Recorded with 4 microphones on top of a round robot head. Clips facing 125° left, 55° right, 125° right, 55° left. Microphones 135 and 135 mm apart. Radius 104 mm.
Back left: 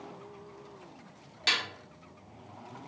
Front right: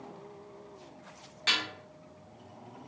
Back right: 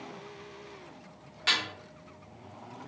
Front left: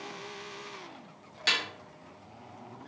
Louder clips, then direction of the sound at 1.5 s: Even, back right 1 dB; 90° left.